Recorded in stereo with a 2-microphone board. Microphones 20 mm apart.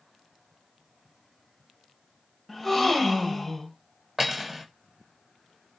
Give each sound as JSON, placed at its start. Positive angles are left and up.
{"t": 2.5, "sound": "a gasp", "side_deg": 5, "distance_m": 1.0}
{"t": 4.2, "sound": "cutlery clinking", "side_deg": -15, "distance_m": 1.1}